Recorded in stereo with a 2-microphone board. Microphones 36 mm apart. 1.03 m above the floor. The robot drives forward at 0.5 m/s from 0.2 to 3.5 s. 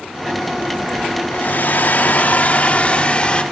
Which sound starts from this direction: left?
A hair dryer, at 1.3 s.